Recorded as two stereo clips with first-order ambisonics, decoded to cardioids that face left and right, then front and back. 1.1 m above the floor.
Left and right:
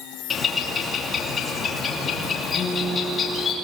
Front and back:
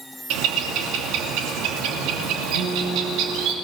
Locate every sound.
0.3 s a bird: 155° left, 2.5 m
2.5 s a guitar: 175° left, 8 m